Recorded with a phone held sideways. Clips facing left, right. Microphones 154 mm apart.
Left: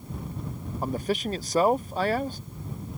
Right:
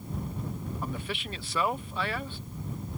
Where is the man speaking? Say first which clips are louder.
Left 12 dB; 40° left (ahead or behind).